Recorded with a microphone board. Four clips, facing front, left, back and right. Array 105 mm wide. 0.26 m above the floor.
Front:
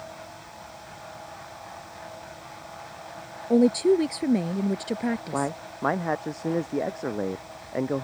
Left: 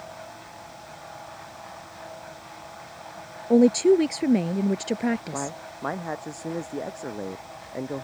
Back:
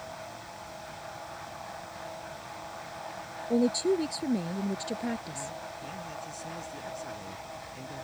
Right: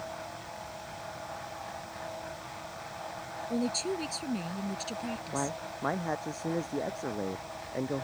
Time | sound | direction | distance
3.5 | a woman speaking | 65° left | ?
5.3 | a man speaking | 10° left | ?